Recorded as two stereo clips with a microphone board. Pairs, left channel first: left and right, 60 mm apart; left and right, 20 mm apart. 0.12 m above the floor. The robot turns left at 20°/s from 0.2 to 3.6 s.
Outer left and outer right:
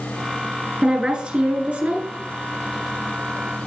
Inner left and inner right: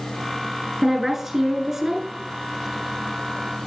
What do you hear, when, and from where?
0.8 s a woman speaking: 10° right (ahead or behind), 2 m; by 2.1 s 25° right (ahead or behind), 2 m